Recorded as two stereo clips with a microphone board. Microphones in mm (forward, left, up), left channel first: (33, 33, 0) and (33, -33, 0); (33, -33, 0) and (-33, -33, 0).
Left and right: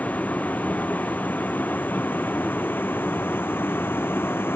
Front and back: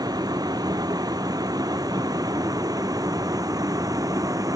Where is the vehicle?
155° left; by 4.6 s 150° left.